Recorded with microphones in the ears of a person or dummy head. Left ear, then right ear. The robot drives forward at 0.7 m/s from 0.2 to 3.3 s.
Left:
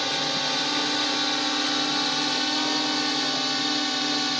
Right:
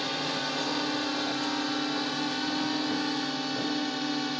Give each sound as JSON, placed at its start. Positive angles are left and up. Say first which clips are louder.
{"t": 0.0, "sound": "a drone", "louder": "left 5 dB", "side_deg": 30}